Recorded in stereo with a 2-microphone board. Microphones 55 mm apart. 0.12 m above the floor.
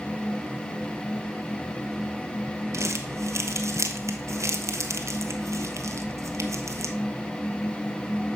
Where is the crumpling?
65° right (ahead or behind), 1.1 m.